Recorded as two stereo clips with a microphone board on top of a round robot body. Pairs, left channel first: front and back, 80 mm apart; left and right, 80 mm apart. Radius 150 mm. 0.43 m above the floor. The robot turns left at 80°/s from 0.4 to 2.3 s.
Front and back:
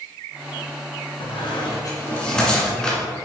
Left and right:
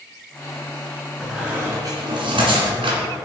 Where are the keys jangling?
No keys jangling in this recording.